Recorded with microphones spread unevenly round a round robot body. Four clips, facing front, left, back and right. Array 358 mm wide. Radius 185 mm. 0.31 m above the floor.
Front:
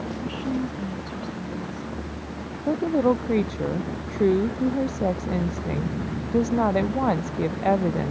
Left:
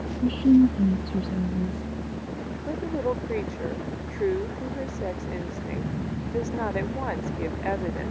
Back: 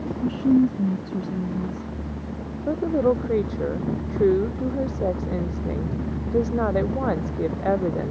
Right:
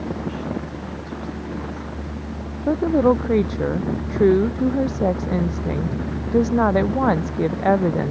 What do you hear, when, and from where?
0.1 s a woman speaking: 125° left
2.7 s a woman speaking: 70° right